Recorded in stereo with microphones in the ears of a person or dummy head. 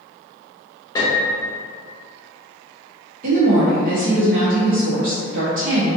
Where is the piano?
20° left (ahead or behind), 0.7 m.